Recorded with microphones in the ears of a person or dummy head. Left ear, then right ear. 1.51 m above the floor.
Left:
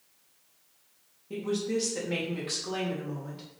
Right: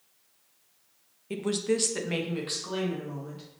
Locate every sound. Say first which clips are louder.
1.3 s a woman speaking: right 2 dB; 45° right (ahead or behind), 0.5 m; by 3.4 s centre (ahead or behind), 1.4 m